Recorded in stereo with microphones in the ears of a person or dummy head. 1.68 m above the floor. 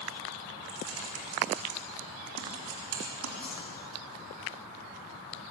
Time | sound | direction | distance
0.7 | typing on a keyboard | 85° right | 4 m
3.4 | a whoosh | 10° left (ahead or behind) | 5 m